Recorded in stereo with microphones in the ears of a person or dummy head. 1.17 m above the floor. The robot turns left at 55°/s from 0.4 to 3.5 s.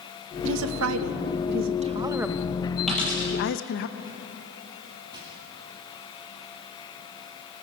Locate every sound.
0.5 s a woman speaking: 70° right (ahead or behind), 0.9 m; by 3.9 s 60° left (ahead or behind), 0.9 m
2.9 s a dropped coin: centre (ahead or behind), 6 m; by 3.3 s 20° left (ahead or behind), 6 m
5.1 s crushing: 25° right (ahead or behind), 3.5 m